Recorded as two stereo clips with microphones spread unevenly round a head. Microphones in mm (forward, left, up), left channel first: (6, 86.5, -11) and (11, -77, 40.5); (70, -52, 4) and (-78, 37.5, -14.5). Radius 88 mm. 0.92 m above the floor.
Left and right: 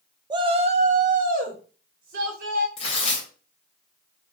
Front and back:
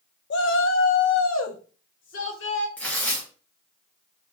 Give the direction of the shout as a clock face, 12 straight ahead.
12 o'clock.